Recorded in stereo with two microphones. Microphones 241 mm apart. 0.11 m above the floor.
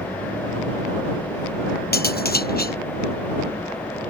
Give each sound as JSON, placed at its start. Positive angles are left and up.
{"t": 1.9, "sound": "cutlery clinking", "side_deg": 40}